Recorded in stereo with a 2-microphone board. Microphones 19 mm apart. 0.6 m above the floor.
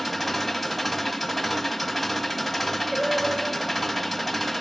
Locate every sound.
0.0 s an engine running: 5° left (ahead or behind), 1.8 m
2.9 s singing: 10° right (ahead or behind), 1.8 m